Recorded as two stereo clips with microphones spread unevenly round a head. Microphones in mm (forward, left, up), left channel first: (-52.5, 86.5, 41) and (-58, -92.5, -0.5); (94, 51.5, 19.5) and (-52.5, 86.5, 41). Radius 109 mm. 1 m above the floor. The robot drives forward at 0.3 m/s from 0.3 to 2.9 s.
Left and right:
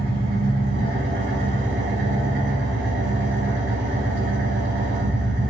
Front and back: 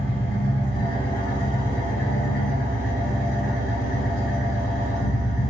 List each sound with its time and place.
0.0 s an engine running: 65° right, 1.5 m; by 5.5 s 100° right, 1.4 m